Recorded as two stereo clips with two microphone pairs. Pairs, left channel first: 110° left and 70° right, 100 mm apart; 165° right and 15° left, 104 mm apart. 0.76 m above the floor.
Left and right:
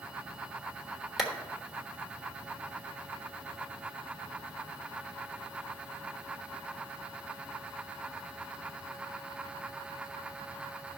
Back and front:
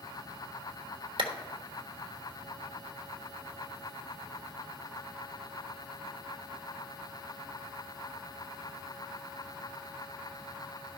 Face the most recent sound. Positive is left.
turn(degrees=20)